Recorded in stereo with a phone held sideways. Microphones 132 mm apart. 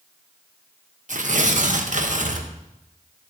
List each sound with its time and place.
1.1 s tearing paper: 65° right (ahead or behind), 0.9 m